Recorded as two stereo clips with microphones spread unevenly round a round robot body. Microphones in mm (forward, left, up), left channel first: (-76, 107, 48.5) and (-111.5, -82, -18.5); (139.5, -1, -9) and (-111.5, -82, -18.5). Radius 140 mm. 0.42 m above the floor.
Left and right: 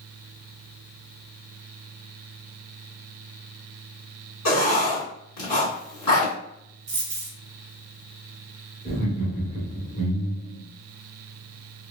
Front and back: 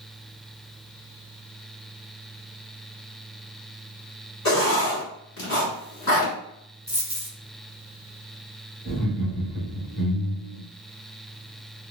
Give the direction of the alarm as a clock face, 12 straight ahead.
No alarm in this recording.